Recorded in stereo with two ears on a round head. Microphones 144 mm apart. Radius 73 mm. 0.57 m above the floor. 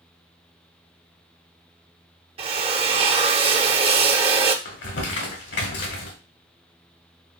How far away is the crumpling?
About 1.9 m.